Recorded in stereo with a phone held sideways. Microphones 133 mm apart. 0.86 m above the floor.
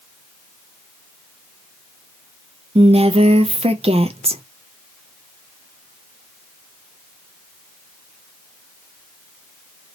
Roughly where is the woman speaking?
Right.